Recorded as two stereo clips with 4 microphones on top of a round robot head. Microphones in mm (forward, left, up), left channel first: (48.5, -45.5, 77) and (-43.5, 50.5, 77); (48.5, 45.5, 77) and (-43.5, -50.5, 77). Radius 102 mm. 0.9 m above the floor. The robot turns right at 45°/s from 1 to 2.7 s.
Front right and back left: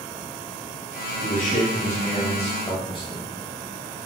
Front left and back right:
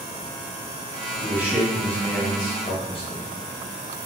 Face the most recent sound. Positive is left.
turn(degrees=5)